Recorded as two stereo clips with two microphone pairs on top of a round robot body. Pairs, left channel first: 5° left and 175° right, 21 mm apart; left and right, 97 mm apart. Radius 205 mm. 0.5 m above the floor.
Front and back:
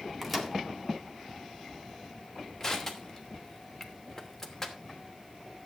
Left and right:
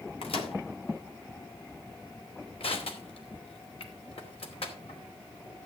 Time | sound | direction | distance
0.2 | a microwave | 100° left | 2.5 m
2.6 | crushing | 85° left | 3 m